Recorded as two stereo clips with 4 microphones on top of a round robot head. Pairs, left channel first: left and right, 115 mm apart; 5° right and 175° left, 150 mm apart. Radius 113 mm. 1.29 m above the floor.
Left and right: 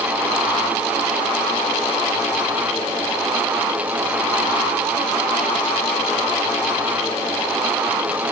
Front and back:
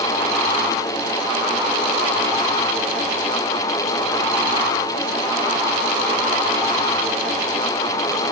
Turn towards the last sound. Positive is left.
No sound to turn to.